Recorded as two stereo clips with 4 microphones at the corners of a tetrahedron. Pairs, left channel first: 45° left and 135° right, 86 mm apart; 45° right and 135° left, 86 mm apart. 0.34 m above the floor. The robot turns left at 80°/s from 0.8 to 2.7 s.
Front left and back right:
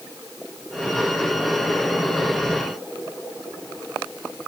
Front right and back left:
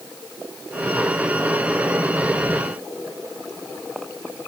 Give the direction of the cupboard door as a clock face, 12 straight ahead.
I don't hear a cupboard door.